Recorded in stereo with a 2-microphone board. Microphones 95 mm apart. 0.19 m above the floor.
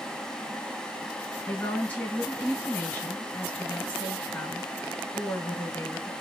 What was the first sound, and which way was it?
A woman speaking, 20° left (ahead or behind).